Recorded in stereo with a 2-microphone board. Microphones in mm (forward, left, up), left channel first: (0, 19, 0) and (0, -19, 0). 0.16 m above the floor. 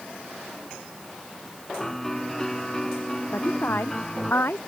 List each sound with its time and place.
1.8 s a piano: 10° left (ahead or behind)
3.3 s a woman speaking: 75° left (ahead or behind)